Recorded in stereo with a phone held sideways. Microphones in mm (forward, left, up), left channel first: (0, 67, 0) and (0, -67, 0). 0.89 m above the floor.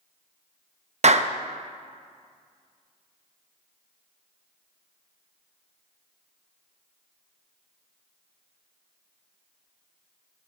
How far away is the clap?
About 0.6 m.